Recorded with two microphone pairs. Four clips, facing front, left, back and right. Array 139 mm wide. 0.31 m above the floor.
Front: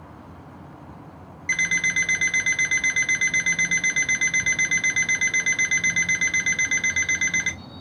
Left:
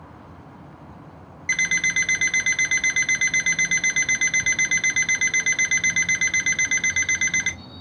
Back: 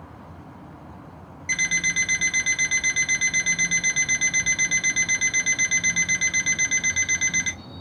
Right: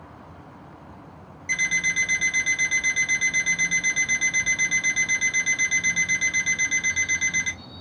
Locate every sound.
1.5 s an alarm clock: 60° left, 1.6 m